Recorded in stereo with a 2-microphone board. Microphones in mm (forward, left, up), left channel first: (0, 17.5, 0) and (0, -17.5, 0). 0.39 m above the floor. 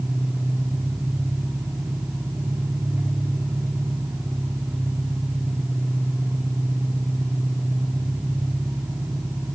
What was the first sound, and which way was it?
An engine running, 55° right (ahead or behind).